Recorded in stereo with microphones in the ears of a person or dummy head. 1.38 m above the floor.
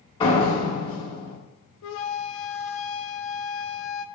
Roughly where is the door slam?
Left.